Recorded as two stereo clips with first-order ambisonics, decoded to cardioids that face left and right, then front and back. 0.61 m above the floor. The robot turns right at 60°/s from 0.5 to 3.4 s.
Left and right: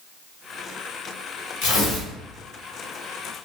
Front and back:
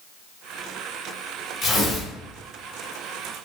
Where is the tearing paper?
70° left, 1.1 m; by 2.1 s 100° left, 1.1 m.